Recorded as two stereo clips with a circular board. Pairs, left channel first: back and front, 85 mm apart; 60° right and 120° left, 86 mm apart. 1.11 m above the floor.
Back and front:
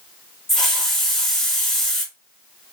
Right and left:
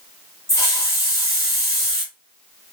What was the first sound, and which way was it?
A hiss, 100° right.